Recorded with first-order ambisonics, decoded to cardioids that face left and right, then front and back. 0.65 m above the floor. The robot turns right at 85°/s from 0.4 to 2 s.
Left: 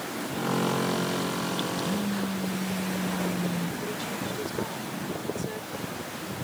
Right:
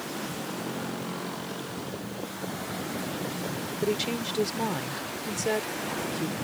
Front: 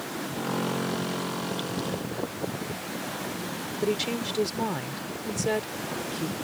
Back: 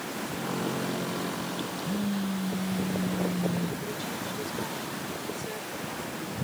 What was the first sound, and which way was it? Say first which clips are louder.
A phone buzzing: left 6 dB, front 1 dB; 125° left.